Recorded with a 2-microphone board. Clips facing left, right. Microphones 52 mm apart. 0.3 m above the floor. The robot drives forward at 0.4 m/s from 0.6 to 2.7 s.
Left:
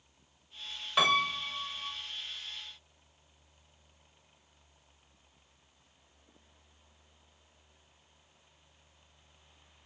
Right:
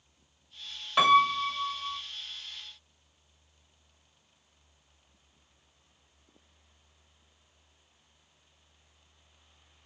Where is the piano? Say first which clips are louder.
Right 6 dB; centre (ahead or behind), 1.1 m.